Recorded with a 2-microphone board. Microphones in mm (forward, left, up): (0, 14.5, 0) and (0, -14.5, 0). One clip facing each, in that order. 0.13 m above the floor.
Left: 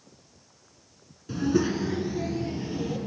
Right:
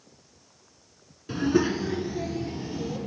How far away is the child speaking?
About 0.8 m.